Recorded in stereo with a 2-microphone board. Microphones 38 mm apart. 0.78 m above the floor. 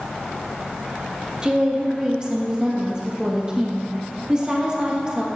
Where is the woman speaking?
20° right (ahead or behind), 1.1 m.